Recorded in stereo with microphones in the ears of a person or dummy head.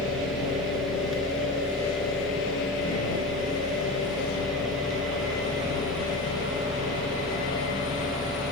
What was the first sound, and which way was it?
A fan, centre (ahead or behind).